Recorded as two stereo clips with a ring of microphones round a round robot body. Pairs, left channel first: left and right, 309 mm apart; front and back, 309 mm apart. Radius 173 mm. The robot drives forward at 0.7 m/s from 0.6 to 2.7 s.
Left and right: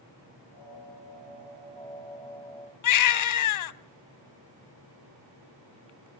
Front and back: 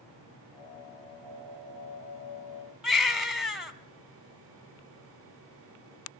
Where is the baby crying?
90° left, 1.0 m.